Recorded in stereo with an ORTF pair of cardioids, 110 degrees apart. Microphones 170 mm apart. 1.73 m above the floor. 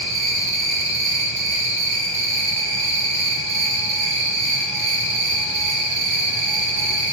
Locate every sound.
0.0 s an insect: straight ahead, 1.0 m